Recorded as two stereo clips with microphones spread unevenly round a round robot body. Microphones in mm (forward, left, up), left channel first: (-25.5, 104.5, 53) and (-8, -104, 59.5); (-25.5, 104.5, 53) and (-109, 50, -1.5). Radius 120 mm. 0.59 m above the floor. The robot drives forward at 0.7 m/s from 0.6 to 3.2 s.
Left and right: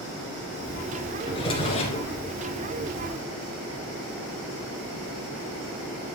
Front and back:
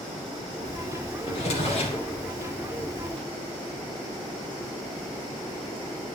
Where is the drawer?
25° left, 2.5 m; by 2.1 s 35° left, 2 m.